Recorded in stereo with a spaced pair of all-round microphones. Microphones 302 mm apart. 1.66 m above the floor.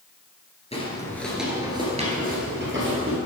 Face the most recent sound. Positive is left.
turn(degrees=-45)  # may be behind; listen again after turning